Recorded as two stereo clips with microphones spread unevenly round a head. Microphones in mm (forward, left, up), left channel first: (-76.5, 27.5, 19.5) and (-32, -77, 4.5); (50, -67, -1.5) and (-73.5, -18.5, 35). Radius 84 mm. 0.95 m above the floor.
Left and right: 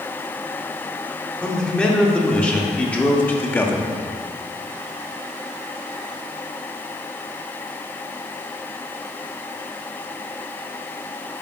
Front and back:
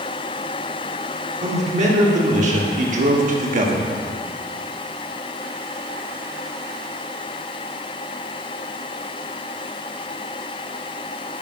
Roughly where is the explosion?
No explosion in this recording.